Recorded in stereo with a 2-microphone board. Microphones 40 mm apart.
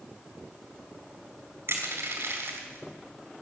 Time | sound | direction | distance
1.7 | crushing | 80° right | 4 m